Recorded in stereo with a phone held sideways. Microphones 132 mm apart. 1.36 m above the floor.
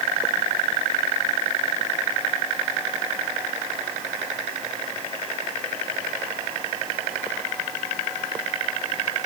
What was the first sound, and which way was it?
Only background noise.